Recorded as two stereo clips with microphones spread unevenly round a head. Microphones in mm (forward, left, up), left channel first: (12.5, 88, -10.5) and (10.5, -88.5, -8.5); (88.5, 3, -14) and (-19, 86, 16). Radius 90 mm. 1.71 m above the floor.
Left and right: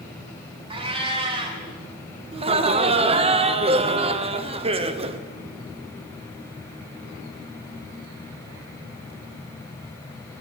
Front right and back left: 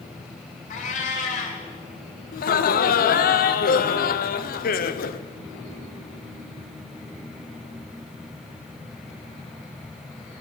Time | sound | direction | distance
0.7 | a cat meowing | 50° right | 1.8 m
2.3 | laughter | 30° right | 1.0 m